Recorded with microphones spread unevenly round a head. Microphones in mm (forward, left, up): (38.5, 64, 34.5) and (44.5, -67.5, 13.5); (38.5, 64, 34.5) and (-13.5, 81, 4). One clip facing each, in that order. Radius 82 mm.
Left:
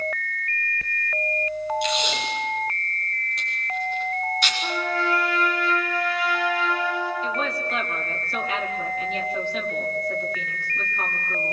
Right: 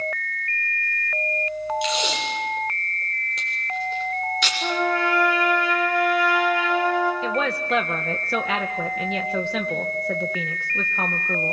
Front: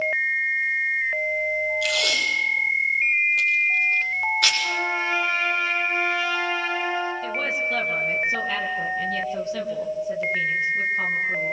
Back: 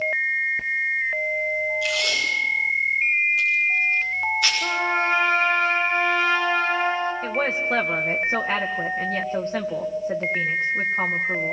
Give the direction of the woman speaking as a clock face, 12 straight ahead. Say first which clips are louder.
Right 3 dB, back 2 dB; 4 o'clock.